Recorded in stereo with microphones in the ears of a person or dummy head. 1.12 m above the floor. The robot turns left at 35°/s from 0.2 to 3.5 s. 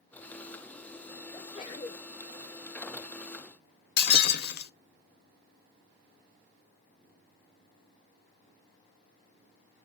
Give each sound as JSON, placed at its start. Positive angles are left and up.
{"t": 1.3, "sound": "a sneeze", "side_deg": 15, "distance_m": 0.7}
{"t": 4.0, "sound": "breaking glass", "side_deg": 60, "distance_m": 0.8}